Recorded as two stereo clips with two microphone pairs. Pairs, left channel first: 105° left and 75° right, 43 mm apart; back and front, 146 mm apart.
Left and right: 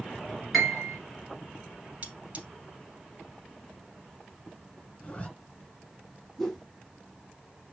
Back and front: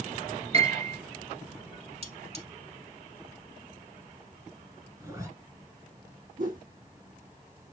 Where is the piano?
10° left, 2 m.